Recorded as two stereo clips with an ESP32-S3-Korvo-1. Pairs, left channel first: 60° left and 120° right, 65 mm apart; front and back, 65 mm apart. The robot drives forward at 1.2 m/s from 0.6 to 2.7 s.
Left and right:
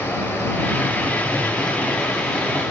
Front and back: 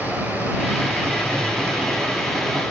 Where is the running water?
120° left, 3.5 m; by 2.7 s 145° left, 5 m.